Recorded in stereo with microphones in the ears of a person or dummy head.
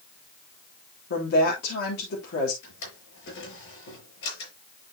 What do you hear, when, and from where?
1.1 s a woman speaking: 60° left (ahead or behind), 3.5 m
2.6 s a drawer: 75° left (ahead or behind), 7.5 m